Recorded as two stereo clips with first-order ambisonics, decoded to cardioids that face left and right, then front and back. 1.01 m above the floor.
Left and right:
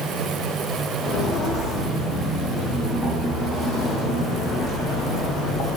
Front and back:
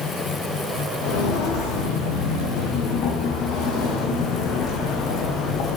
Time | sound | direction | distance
1.0 | footsteps | 15° left | 4 m